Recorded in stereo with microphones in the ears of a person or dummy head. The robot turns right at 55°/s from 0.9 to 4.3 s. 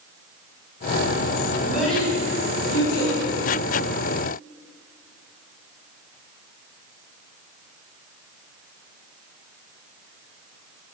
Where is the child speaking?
15° right (ahead or behind), 5 m; by 3.1 s 70° left (ahead or behind), 5 m.